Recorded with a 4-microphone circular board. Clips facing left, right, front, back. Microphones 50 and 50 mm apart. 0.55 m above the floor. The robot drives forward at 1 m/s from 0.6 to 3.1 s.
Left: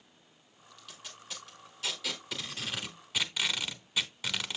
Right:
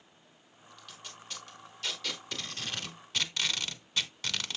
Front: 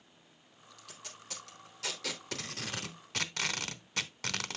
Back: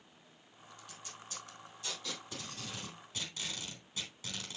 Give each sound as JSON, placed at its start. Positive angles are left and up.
{"t": 0.8, "sound": "tape being pulled", "azimuth_deg": 0, "distance_m": 3.0}